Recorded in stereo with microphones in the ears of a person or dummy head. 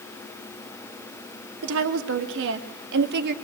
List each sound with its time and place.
1.6 s a woman speaking: 70° right (ahead or behind), 3.5 m; by 3.4 s 50° right (ahead or behind), 2 m